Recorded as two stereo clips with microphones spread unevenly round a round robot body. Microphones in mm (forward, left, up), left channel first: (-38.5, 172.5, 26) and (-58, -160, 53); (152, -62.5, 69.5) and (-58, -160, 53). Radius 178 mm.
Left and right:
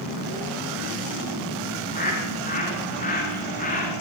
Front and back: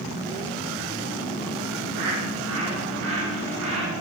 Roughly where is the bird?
Behind left.